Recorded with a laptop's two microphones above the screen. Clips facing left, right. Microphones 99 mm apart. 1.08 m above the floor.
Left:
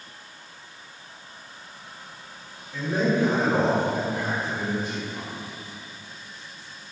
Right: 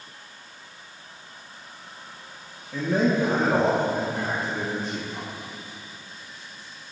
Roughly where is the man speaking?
Right.